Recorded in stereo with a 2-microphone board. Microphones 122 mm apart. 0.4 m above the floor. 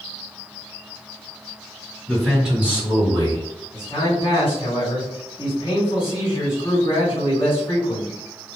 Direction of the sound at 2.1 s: 10° left (ahead or behind).